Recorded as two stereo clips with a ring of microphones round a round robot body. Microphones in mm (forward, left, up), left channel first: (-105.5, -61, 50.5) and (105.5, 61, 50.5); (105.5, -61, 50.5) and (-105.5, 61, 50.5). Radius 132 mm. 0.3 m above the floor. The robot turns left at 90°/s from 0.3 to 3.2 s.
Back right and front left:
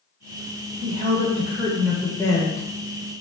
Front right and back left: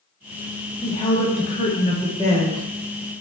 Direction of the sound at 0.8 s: 40° left.